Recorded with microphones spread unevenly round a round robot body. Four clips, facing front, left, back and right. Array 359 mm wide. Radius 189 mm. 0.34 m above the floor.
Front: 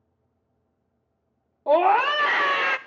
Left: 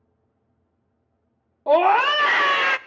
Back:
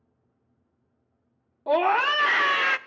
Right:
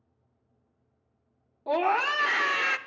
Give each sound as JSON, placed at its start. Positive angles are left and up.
{"t": 1.7, "sound": "a scream", "azimuth_deg": 60, "distance_m": 0.8}